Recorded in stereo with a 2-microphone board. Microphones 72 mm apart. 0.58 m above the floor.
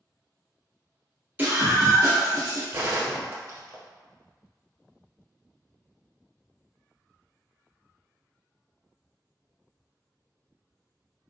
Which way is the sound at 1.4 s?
20° right (ahead or behind).